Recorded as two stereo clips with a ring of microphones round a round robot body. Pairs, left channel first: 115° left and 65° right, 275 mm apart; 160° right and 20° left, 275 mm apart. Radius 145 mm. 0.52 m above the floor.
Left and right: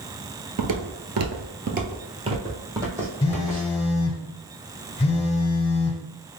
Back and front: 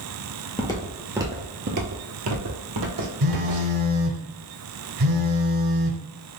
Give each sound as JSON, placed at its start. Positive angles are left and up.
{"t": 0.6, "sound": "footsteps", "azimuth_deg": -90, "distance_m": 0.7}
{"t": 3.2, "sound": "a phone buzzing", "azimuth_deg": 40, "distance_m": 0.6}